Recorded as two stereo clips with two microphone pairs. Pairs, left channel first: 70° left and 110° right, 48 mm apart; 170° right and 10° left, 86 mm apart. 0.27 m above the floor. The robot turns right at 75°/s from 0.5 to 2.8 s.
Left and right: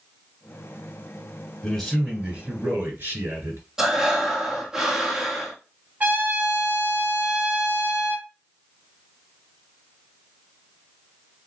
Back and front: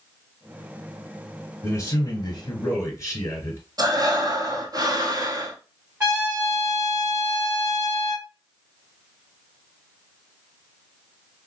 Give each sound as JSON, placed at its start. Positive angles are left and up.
{"t": 1.6, "sound": "a man speaking", "azimuth_deg": 140, "distance_m": 2.0}
{"t": 3.8, "sound": "breathing", "azimuth_deg": -35, "distance_m": 1.1}
{"t": 6.0, "sound": "a trumpet", "azimuth_deg": -55, "distance_m": 2.0}